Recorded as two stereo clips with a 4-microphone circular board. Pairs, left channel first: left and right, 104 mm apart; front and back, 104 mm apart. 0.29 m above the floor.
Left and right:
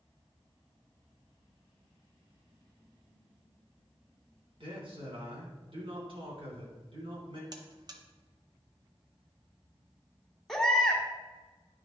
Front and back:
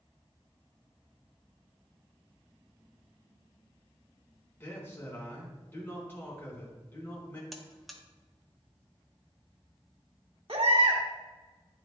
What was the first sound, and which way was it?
A man speaking, 70° right.